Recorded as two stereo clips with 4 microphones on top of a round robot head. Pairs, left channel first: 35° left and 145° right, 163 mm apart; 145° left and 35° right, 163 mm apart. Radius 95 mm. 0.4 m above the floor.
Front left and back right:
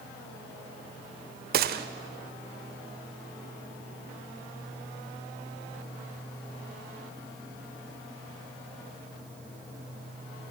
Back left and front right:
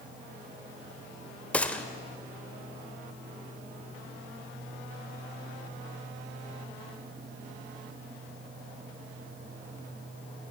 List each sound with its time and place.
1.5 s a gunshot: 135° right, 0.7 m